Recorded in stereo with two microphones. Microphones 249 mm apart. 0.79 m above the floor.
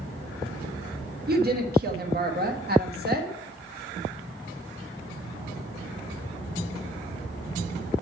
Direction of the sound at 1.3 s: 40° right (ahead or behind).